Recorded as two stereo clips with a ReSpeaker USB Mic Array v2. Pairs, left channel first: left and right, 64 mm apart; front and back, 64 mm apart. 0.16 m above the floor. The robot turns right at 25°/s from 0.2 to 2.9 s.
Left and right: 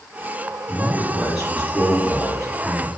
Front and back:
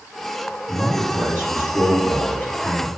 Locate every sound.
0.7 s a man speaking: 15° right, 1.8 m; by 2.9 s 40° left, 1.8 m